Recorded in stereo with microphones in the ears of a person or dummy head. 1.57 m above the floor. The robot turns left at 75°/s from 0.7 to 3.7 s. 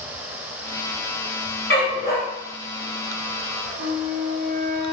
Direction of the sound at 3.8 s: 35° right (ahead or behind).